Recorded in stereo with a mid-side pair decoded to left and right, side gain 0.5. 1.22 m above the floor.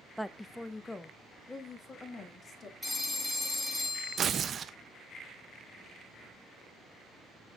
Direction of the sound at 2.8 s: 5° left.